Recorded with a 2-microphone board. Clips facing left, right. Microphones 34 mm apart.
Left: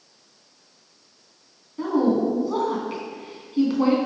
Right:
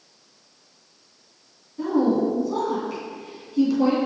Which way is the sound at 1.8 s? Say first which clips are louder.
Even; 35° left (ahead or behind).